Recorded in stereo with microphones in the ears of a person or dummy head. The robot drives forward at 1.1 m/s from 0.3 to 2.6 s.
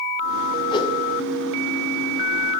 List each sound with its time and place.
0.7 s a whoosh: 30° left (ahead or behind), 1.5 m